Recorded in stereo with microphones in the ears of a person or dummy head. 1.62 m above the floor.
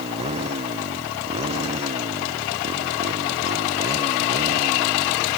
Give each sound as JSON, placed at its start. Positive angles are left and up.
{"t": 0.0, "sound": "a motorcycle", "side_deg": -30}